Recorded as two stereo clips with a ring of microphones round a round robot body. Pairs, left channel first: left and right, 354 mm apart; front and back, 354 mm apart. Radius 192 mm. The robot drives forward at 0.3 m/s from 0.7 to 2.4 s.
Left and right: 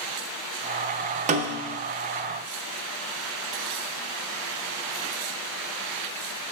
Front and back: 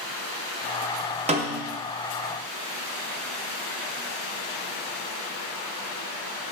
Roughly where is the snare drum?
Behind right.